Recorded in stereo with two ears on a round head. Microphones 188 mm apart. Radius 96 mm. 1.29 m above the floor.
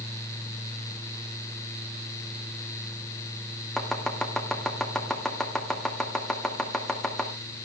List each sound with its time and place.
3.8 s chopping: 5° left (ahead or behind), 1.9 m